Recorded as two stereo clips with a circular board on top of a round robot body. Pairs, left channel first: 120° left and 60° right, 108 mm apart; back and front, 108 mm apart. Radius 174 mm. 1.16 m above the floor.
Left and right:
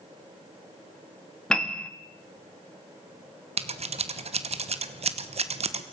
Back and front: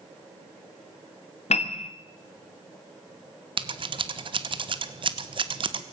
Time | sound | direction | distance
1.5 | a piano | 155° right | 1.4 m
3.6 | scissors | 40° right | 1.4 m